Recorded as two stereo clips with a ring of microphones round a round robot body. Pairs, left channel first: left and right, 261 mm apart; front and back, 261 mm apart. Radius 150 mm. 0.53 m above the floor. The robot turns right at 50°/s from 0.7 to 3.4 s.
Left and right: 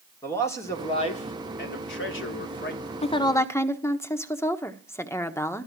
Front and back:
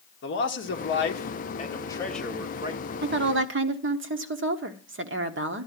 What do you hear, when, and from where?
0.2 s a man speaking: 15° left, 1.7 m; by 2.9 s 125° left, 1.7 m
3.0 s a woman speaking: 150° left, 1.2 m; by 5.7 s 165° left, 1.2 m